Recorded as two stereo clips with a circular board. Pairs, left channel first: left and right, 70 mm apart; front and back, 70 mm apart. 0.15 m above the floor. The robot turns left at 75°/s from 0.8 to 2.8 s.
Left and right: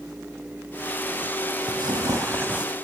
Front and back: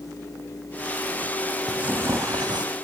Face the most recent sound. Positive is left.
turn(degrees=-175)